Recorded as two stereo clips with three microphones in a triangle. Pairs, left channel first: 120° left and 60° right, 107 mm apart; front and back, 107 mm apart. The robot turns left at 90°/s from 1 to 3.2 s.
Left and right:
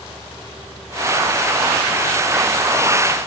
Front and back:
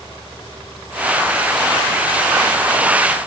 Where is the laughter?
No laughter in this recording.